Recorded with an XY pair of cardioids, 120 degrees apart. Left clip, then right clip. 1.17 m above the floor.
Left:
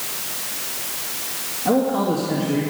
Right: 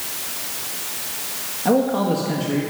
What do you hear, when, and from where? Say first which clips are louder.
1.6 s a man speaking: right 1 dB; 35° right, 1.9 m